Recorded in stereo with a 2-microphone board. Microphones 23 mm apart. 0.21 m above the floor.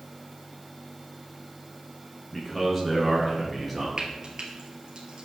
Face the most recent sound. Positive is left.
turn(degrees=-35)  # may be behind; listen again after turning